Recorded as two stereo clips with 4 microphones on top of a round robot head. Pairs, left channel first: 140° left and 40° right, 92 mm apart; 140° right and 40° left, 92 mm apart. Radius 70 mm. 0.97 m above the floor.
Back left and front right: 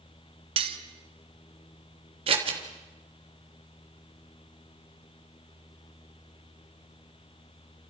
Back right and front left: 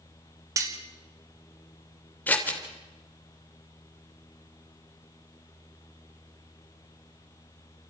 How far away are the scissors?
About 3.5 m.